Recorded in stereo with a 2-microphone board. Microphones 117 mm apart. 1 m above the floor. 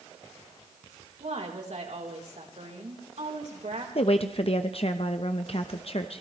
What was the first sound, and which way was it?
A woman speaking, 75° right (ahead or behind).